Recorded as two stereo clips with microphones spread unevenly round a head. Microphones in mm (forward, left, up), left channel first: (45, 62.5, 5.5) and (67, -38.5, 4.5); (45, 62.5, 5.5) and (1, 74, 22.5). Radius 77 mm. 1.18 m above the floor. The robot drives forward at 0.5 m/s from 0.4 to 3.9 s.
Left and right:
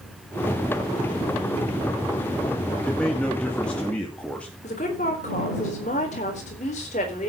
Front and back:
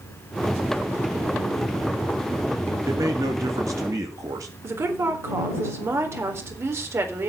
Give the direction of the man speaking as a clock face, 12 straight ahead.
6 o'clock.